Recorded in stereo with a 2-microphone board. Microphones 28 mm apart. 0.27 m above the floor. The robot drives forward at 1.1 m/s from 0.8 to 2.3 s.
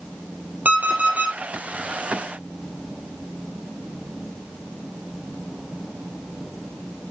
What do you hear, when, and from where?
0.7 s an alarm clock: 70° right (ahead or behind), 2.5 m; by 1.4 s 60° right (ahead or behind), 3 m